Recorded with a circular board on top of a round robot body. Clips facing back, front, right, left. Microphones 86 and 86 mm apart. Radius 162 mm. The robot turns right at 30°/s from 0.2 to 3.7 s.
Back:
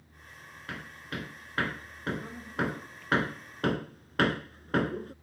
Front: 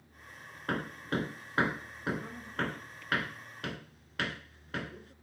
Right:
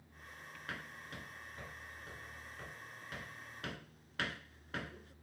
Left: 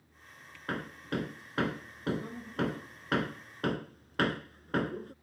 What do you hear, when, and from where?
0.7 s hammering: 45° left; by 5.1 s 135° left